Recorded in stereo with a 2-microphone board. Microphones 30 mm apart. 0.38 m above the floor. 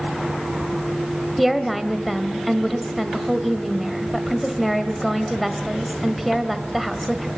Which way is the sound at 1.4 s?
Centre (ahead or behind).